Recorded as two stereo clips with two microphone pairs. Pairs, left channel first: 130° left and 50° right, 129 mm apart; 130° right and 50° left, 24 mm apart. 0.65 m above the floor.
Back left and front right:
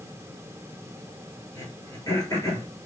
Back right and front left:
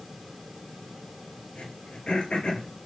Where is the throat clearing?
165° right, 3 m.